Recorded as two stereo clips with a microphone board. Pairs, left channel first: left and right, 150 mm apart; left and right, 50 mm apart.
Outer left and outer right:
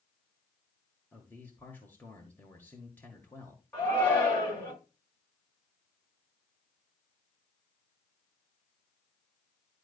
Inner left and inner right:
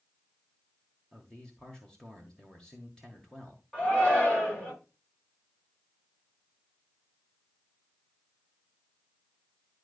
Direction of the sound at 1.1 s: 15° left (ahead or behind).